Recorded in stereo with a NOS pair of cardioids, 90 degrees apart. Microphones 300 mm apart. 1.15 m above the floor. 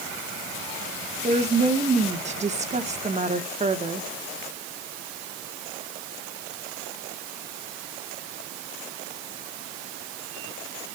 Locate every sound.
1.2 s a woman speaking: 25° right, 1.4 m